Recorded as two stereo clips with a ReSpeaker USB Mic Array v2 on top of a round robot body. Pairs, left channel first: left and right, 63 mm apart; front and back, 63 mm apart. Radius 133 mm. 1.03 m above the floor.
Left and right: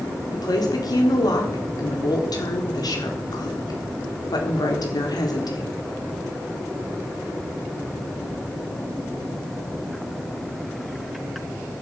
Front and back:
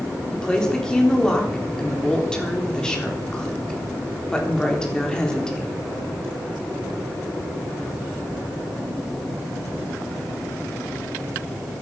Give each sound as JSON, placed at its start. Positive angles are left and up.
{"t": 0.3, "sound": "a woman speaking", "azimuth_deg": 80, "distance_m": 3.5}